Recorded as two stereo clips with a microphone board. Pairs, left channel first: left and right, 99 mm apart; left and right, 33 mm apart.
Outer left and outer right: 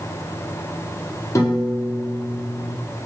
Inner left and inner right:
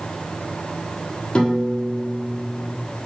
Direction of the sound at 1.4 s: 35° left (ahead or behind).